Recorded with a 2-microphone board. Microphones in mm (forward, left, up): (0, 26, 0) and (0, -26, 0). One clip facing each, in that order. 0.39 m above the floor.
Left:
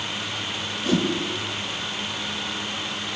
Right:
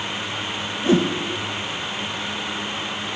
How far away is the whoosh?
About 0.7 m.